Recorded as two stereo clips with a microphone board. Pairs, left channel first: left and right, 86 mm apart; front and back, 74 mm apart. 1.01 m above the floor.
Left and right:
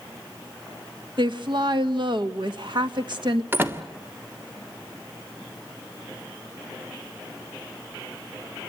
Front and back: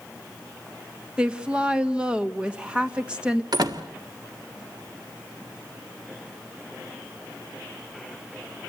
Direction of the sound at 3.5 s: 155° right.